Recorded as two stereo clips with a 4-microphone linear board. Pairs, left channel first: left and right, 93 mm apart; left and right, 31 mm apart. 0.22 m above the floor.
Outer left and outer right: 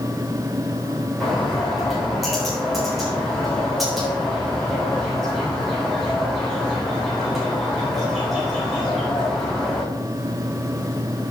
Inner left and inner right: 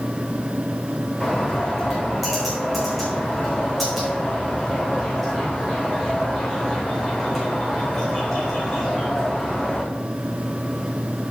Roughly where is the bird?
Centre.